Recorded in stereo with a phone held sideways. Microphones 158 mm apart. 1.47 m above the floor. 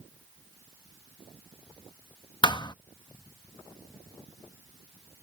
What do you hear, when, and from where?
2.4 s a thud: 30° left (ahead or behind)